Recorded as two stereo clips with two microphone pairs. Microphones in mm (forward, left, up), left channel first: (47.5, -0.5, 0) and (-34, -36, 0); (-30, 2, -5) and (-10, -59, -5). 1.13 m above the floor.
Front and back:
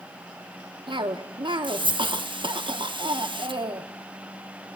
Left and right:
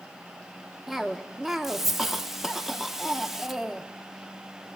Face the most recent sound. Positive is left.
turn(degrees=-155)